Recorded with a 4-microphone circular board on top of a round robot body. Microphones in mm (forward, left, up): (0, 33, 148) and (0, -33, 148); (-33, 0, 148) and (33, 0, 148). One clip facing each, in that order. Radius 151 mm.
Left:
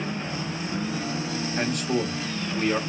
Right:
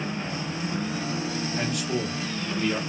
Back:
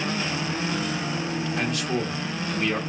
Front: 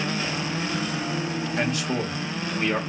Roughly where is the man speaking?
Ahead left.